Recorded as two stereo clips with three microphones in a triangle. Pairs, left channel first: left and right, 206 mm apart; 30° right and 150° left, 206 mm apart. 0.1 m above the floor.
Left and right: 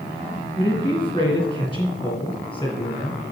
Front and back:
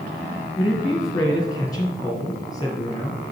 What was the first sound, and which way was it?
A man speaking, 35° left.